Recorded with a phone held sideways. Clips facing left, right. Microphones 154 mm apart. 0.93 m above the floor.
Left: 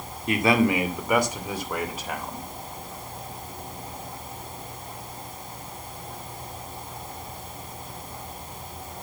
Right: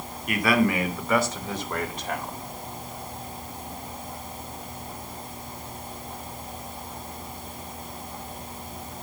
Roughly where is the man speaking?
Left.